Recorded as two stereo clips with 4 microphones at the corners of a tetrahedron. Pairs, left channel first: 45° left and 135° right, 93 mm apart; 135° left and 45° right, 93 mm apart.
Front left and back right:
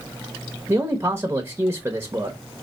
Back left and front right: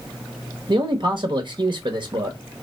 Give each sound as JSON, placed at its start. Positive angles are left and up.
{"t": 0.7, "sound": "a man speaking", "azimuth_deg": -70, "distance_m": 0.9}